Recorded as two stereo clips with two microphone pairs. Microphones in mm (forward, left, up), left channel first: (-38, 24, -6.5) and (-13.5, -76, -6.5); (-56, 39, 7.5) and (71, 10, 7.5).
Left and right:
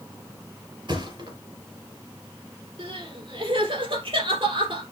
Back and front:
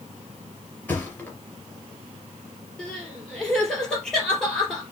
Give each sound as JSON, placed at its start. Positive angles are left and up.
{"t": 0.9, "sound": "a thud", "azimuth_deg": -115, "distance_m": 3.0}
{"t": 2.8, "sound": "crying", "azimuth_deg": -110, "distance_m": 3.0}